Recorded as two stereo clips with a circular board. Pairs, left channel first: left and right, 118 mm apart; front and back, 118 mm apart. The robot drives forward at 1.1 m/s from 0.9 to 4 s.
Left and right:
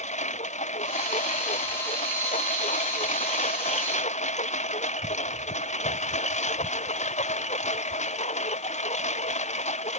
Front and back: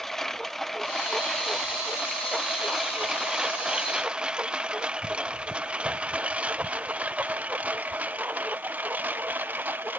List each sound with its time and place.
0.0 s a lawn mower: 85° left; by 10.0 s 105° left